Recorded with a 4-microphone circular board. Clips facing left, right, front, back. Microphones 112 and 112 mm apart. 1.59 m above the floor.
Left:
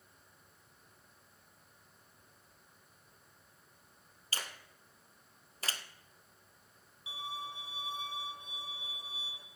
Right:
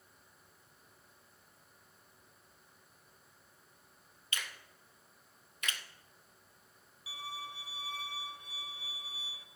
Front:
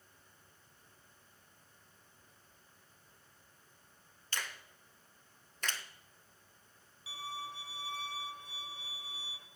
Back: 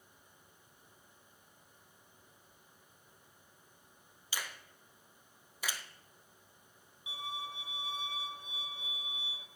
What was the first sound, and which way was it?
A finger snap, 105° left.